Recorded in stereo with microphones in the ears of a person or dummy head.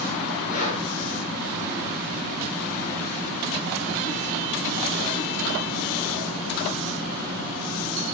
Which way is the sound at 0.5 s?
45° left (ahead or behind).